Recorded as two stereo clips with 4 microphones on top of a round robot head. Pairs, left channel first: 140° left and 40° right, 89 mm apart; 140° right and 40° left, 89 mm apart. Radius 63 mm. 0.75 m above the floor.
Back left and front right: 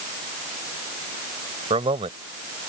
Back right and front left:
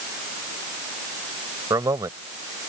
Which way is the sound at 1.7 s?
15° right.